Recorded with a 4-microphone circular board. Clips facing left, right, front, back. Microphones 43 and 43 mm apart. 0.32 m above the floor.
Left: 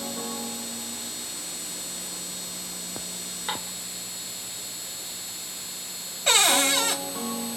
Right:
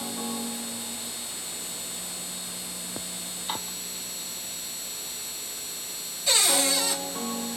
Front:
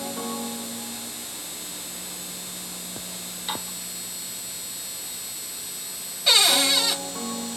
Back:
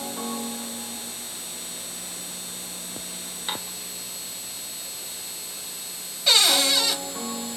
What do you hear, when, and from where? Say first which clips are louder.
3.5 s dishes clattering: left 2 dB, even; 115° left, 3 m
6.3 s a cupboard door: left 4 dB, even; 90° left, 1.3 m